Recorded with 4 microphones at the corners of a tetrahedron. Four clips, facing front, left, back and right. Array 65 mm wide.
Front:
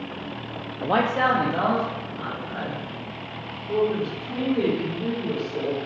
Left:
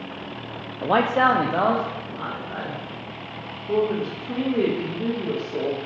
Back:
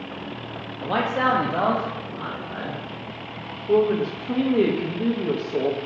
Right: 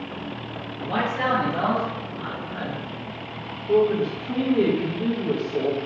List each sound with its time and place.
0.8 s a man speaking: 60° left, 0.5 m; by 2.8 s 120° left, 2 m
3.7 s a woman speaking: 170° left, 1.6 m